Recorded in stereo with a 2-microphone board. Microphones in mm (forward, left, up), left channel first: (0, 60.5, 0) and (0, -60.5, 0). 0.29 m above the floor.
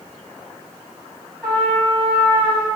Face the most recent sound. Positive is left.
turn(degrees=5)  # may be behind; listen again after turning